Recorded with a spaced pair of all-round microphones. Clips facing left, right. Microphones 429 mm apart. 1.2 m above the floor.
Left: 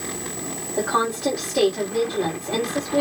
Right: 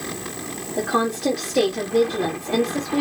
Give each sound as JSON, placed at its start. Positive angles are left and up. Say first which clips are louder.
{"t": 0.8, "sound": "a woman speaking", "louder": "right 2 dB", "side_deg": -45, "distance_m": 2.5}